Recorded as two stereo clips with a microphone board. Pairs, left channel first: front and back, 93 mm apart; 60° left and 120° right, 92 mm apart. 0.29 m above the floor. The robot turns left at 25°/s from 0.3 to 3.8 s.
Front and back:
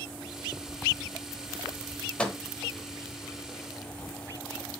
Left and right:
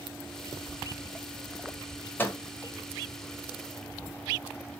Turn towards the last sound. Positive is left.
turn(degrees=20)